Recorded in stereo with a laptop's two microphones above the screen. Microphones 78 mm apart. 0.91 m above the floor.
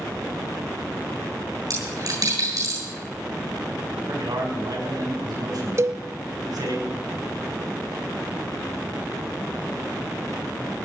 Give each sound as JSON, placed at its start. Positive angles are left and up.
{"t": 1.7, "sound": "a dropped coin", "side_deg": -55, "distance_m": 8.5}
{"t": 3.9, "sound": "a man speaking", "side_deg": -55, "distance_m": 6.0}
{"t": 5.8, "sound": "a cowbell", "side_deg": -40, "distance_m": 0.7}